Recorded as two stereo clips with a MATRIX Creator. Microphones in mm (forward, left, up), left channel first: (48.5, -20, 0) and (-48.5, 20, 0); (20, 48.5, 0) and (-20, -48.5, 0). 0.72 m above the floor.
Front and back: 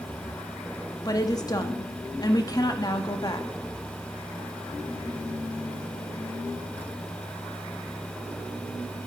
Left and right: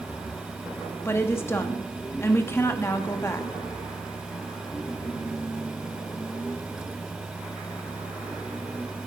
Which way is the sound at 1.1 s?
10° left.